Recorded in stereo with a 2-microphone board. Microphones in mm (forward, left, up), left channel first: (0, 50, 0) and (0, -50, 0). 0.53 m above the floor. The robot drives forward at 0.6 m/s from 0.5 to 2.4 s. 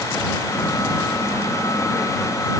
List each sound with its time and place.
Only background noise.